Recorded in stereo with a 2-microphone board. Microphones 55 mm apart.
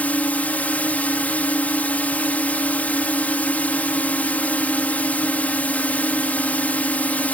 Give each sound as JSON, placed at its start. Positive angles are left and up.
{"t": 0.0, "sound": "a drone", "side_deg": 30}